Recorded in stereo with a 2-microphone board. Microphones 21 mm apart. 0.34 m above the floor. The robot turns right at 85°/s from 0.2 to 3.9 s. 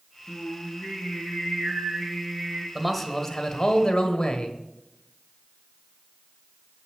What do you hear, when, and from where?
0.3 s singing: 40° left, 4 m; by 2.6 s 115° right, 4 m
2.8 s a man speaking: 15° right, 1.4 m; by 4.6 s 85° left, 1.4 m